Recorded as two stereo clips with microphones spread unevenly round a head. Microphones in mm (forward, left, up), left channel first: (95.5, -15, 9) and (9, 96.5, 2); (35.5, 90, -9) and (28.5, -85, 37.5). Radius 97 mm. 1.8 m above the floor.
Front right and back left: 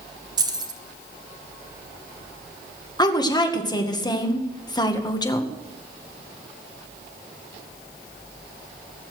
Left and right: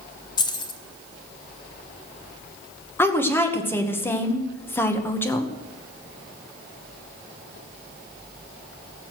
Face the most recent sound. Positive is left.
turn(degrees=10)